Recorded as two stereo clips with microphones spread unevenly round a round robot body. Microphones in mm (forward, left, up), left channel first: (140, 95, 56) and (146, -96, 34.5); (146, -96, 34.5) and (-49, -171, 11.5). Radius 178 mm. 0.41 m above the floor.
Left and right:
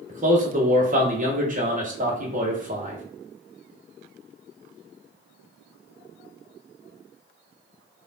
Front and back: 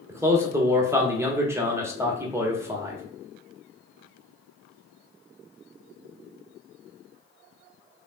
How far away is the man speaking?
About 1.2 m.